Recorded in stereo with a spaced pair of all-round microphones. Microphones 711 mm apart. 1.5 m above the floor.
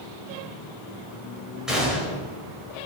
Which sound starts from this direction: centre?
A gunshot, at 1.7 s.